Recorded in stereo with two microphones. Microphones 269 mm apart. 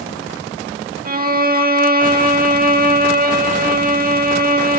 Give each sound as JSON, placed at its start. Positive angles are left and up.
{"t": 1.1, "sound": "a violin", "side_deg": -35, "distance_m": 0.9}